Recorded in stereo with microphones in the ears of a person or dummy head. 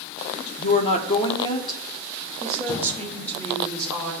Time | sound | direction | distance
0.6 | a woman speaking | 45° left (ahead or behind) | 1.7 m